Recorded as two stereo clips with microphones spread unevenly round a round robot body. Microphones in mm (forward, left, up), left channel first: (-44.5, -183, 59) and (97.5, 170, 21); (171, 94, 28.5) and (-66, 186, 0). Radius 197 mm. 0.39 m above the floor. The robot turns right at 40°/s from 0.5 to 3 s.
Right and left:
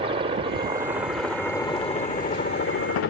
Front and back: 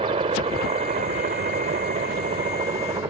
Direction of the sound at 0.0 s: 120° left.